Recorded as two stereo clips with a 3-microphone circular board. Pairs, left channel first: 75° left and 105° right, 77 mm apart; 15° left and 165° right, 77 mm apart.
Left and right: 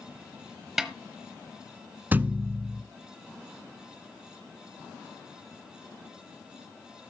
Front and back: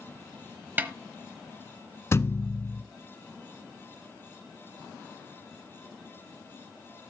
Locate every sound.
0.8 s a snare drum: 175° left, 1.1 m
2.1 s a thud: 40° right, 0.6 m